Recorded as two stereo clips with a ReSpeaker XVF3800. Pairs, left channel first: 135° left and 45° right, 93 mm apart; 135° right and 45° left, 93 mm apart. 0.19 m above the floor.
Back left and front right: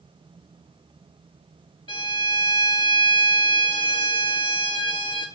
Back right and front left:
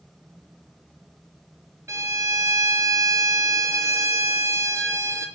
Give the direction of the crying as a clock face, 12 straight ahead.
I don't hear crying.